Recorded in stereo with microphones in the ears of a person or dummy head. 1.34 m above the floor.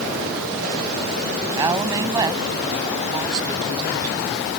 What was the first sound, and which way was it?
A woman speaking, 15° right (ahead or behind).